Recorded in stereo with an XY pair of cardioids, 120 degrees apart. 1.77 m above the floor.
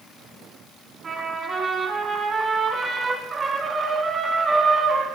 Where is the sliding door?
No sliding door in this recording.